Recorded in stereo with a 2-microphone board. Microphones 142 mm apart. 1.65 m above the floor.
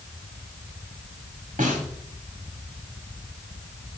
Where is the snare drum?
70° right (ahead or behind), 3 m.